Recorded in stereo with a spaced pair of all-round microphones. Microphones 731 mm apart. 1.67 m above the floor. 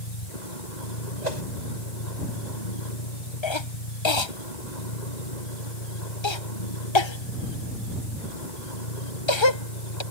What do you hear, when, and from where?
0.0 s a vehicle: 85° left
1.2 s a whoosh: 85° right
3.4 s a cough: 40° left (ahead or behind)